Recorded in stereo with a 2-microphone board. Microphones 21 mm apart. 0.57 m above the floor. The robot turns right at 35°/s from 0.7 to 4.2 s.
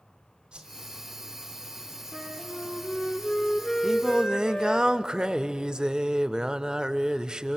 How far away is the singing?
About 0.6 m.